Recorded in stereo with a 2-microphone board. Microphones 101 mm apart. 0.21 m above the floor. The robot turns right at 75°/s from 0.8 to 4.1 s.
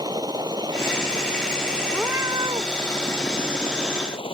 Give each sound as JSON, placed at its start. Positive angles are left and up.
{"t": 0.0, "sound": "a helicopter", "side_deg": -45}
{"t": 1.9, "sound": "a cat meowing", "azimuth_deg": -170}